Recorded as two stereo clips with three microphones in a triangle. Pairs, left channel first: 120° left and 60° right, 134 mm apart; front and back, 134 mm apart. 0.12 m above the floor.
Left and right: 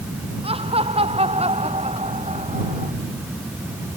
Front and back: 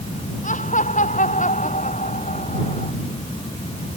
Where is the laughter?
15° right; by 2.9 s 25° right.